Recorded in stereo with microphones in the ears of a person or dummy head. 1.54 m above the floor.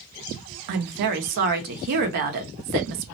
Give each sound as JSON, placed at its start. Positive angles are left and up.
{"t": 0.7, "sound": "a woman speaking", "side_deg": -55, "distance_m": 0.7}